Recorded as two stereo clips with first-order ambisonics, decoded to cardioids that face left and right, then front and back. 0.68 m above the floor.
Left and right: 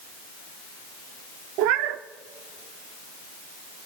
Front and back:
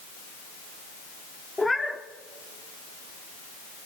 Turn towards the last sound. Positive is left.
turn(degrees=-80)